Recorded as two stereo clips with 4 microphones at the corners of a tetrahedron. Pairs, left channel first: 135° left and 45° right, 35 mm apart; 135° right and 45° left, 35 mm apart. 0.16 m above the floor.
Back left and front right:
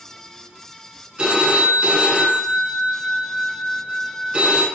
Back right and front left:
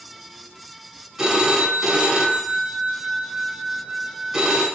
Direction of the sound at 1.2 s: 20° right.